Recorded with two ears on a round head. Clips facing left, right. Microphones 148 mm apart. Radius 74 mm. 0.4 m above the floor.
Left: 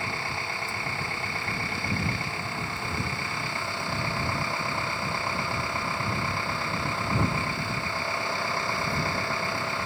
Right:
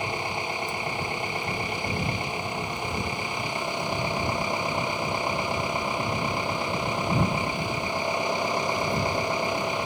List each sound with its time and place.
0.0 s an engine running: 15° right (ahead or behind)